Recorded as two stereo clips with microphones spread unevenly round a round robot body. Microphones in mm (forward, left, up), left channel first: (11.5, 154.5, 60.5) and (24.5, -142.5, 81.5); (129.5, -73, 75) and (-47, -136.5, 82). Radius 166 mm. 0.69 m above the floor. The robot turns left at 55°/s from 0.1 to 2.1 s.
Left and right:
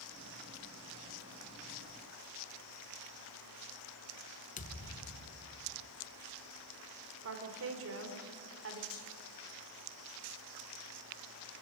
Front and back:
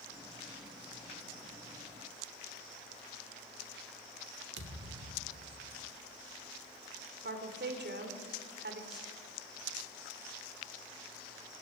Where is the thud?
160° left, 1.0 m.